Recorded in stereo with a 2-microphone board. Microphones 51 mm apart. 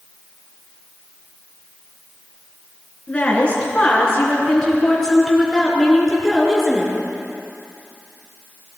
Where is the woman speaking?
25° left (ahead or behind), 4 m; by 6.9 s 5° right (ahead or behind), 4 m.